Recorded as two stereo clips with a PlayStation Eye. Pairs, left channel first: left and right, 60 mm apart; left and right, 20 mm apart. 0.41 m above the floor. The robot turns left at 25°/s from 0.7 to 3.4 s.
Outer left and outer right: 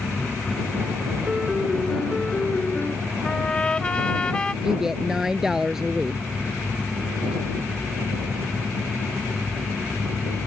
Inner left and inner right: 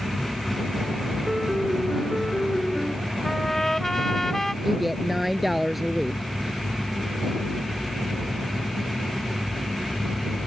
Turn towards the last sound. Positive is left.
turn(degrees=-10)  # may be behind; listen again after turning